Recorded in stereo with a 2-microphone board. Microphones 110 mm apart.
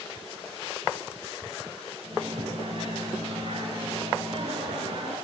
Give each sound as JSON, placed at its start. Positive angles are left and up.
{"t": 2.0, "sound": "a microwave", "side_deg": -55, "distance_m": 8.0}